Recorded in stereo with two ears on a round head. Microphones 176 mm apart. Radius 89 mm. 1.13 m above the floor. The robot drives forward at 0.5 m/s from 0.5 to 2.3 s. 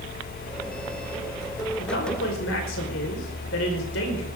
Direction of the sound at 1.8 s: 65° left (ahead or behind).